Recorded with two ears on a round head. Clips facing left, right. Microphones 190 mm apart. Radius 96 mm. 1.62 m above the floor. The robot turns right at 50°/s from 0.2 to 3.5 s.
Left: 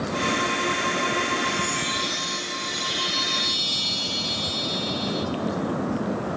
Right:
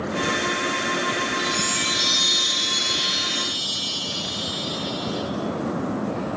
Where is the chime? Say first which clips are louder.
Even; 110° right, 0.9 m; by 5.3 s straight ahead, 0.9 m.